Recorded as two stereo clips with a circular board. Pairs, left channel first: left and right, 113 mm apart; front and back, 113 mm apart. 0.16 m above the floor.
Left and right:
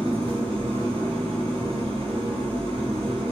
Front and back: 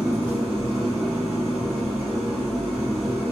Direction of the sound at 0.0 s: 85° right.